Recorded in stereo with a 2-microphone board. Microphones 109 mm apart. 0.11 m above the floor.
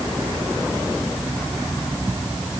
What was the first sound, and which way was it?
Only background noise.